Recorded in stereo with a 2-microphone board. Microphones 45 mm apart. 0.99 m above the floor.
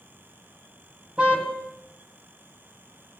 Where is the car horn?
25° right (ahead or behind), 4 m.